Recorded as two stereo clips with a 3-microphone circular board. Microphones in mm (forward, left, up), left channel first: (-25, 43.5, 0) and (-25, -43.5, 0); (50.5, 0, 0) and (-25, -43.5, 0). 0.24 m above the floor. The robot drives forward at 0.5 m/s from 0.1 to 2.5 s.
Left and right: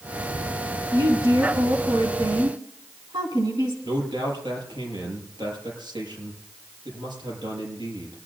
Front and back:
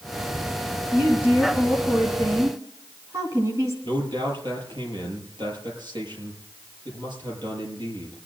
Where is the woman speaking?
85° right, 2.5 m; by 3.7 s 105° right, 2.5 m.